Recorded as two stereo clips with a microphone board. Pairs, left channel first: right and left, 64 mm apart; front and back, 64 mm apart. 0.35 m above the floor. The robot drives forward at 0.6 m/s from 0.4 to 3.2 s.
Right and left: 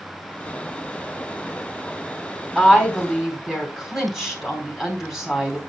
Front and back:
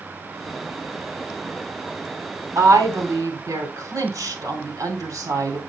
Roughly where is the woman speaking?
Behind.